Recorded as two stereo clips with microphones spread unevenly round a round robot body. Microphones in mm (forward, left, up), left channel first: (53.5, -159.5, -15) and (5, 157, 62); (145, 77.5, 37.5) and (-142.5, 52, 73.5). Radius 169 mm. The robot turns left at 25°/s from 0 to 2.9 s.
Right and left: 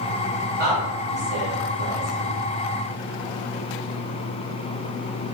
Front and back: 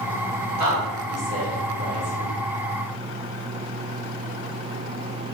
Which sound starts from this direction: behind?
A woman speaking, at 0.6 s.